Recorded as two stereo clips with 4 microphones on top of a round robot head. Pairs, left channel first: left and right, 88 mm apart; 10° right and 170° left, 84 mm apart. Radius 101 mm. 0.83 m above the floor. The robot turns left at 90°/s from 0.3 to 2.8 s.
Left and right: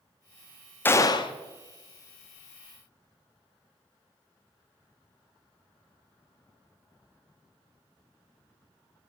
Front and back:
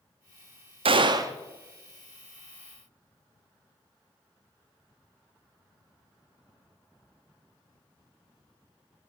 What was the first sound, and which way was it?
A gunshot, 160° left.